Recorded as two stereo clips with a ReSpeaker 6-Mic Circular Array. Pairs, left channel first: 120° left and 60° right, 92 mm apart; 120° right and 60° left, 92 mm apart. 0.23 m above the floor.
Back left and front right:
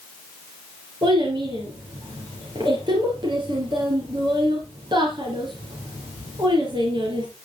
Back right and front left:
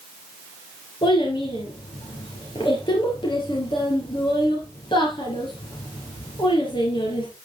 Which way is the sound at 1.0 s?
90° right.